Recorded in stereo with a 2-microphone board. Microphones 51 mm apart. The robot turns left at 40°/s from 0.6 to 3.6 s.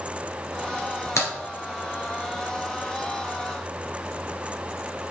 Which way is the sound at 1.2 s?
60° left (ahead or behind).